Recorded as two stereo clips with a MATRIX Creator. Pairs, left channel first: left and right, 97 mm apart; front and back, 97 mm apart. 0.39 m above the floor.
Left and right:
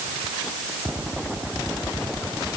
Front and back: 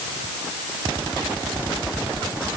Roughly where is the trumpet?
I don't hear a trumpet.